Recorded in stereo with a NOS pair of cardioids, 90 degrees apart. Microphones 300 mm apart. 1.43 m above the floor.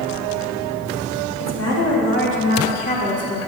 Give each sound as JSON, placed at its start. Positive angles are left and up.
{"t": 1.4, "sound": "a woman speaking", "azimuth_deg": 55, "distance_m": 3.0}